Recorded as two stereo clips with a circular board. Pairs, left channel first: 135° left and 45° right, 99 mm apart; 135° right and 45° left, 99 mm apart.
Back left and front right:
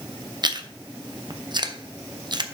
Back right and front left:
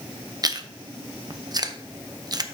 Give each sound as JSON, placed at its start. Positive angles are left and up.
{"t": 0.4, "sound": "chewing", "azimuth_deg": -5, "distance_m": 0.6}